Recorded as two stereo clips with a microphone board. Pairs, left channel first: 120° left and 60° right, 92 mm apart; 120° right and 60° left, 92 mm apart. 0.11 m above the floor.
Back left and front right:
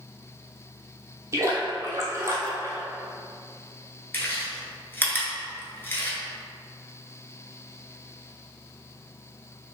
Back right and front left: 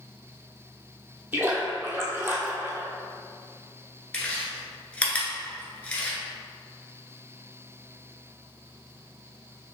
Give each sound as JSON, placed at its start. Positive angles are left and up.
{"t": 1.3, "sound": "a splash", "azimuth_deg": -5, "distance_m": 0.9}
{"t": 4.1, "sound": "chewing", "azimuth_deg": 170, "distance_m": 0.9}